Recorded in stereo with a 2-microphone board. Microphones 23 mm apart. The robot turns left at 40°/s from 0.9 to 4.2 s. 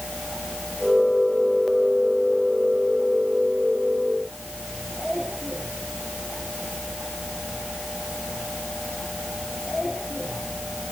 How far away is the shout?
I don't hear a shout.